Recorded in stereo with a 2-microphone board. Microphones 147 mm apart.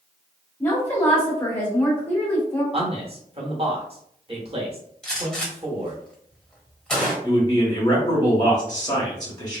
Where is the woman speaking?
15° left (ahead or behind), 1.9 m.